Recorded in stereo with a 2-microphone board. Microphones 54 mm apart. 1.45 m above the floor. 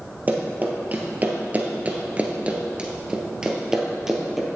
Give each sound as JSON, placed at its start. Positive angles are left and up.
{"t": 0.3, "sound": "running footsteps", "side_deg": -30, "distance_m": 2.0}